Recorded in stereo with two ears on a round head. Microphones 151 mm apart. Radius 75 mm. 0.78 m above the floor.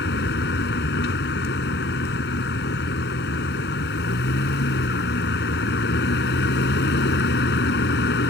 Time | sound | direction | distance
0.0 | a vehicle | 70° left (ahead or behind) | ?